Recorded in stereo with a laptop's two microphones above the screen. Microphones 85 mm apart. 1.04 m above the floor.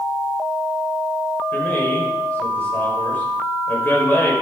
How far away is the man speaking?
About 5 m.